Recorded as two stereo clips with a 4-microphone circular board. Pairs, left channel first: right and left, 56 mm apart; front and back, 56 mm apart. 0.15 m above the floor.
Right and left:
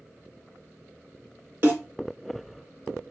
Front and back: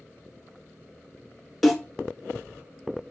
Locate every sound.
1.6 s a snare drum: 85° left, 1.5 m